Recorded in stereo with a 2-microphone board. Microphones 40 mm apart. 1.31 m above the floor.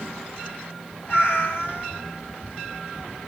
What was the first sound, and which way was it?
A cat meowing, 55° left (ahead or behind).